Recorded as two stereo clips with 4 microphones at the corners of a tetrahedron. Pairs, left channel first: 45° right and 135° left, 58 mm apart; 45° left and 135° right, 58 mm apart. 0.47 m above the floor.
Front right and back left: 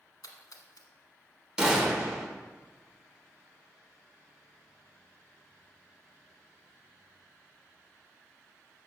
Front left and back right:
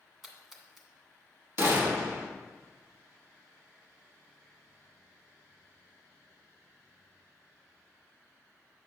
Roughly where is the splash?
Ahead right.